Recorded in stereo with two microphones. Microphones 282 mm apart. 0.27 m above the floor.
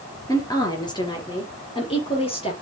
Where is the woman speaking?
10° left (ahead or behind), 4 m; by 2.5 s 20° left (ahead or behind), 6 m.